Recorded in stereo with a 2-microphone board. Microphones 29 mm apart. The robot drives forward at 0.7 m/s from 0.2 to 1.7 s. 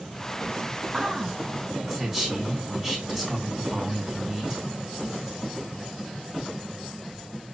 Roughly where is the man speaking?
Right.